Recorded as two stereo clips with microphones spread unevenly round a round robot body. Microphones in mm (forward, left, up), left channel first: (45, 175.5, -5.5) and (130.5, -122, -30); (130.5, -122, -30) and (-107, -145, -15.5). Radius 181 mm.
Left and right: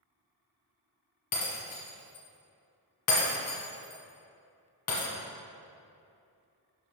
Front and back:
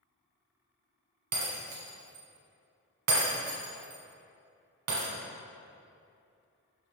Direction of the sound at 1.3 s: 155° left.